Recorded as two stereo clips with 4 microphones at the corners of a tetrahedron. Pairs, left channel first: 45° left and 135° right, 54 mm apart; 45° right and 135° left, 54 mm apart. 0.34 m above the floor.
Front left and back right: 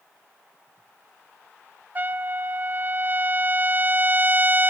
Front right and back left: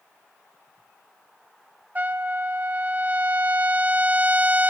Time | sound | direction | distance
1.9 | a trumpet | 175° right | 0.8 m